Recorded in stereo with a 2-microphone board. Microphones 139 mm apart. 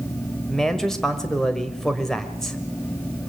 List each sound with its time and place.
0.5 s a man speaking: 5° left (ahead or behind), 1.6 m